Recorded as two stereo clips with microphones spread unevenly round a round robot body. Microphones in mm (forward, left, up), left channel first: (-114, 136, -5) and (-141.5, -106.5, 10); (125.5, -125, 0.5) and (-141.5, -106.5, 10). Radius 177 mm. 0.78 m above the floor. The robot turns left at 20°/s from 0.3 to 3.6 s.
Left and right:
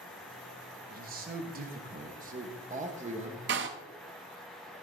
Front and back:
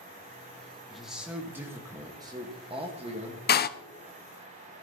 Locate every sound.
0.9 s a man speaking: 90° right, 1.1 m; by 3.4 s 140° right, 1.1 m
3.5 s a door slam: 50° right, 0.6 m